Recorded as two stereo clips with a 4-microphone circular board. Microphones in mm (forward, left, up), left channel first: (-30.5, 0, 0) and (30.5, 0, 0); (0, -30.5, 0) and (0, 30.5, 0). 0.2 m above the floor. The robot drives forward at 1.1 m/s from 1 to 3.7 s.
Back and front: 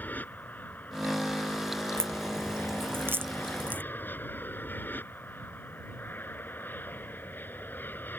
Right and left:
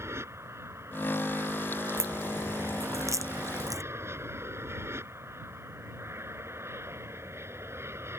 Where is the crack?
45° left; by 3.8 s 60° left.